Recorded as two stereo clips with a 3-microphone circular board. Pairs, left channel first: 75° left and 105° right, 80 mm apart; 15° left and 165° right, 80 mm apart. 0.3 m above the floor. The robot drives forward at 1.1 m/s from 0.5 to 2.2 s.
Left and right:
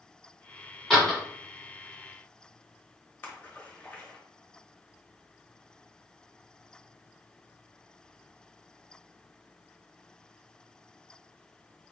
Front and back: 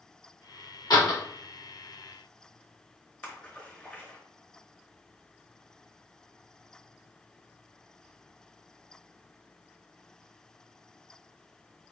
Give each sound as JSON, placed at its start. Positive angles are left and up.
{"t": 0.9, "sound": "a door slam", "azimuth_deg": -10, "distance_m": 1.7}
{"t": 3.2, "sound": "a splash", "azimuth_deg": 65, "distance_m": 1.1}